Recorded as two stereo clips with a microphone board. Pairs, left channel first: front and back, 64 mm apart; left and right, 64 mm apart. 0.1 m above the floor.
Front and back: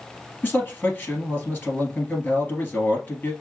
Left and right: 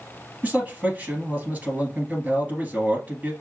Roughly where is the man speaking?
Ahead right.